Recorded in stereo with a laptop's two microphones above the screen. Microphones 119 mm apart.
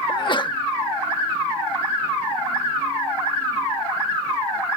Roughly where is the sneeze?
Left.